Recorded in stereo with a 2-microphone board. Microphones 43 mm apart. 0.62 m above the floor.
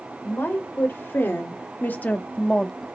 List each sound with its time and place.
0.2 s a woman speaking: 65° left (ahead or behind), 2.5 m; by 2.9 s centre (ahead or behind), 1.0 m